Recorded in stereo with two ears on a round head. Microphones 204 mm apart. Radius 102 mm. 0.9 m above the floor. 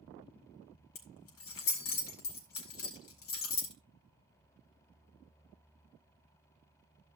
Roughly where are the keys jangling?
Left.